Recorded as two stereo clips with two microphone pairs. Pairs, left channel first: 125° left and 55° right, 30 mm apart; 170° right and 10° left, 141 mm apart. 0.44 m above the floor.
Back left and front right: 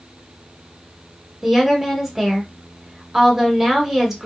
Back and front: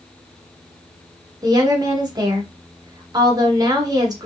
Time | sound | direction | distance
1.4 | a woman speaking | 5° left | 1.0 m